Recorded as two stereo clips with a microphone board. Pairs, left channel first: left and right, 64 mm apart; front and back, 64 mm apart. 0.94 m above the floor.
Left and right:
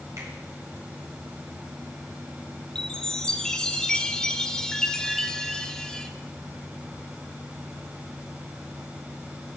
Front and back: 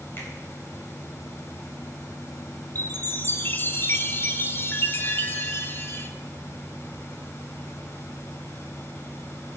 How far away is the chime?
About 0.9 m.